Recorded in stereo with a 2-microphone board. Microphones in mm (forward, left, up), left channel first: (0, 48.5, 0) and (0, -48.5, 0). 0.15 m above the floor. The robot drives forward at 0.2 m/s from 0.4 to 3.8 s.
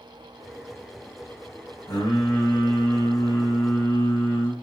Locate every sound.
1.9 s singing: 25° left (ahead or behind), 1.8 m